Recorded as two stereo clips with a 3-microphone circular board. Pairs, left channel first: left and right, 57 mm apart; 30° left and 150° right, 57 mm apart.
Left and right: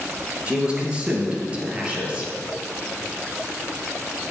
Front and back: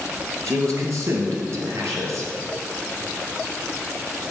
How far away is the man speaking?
About 2.5 m.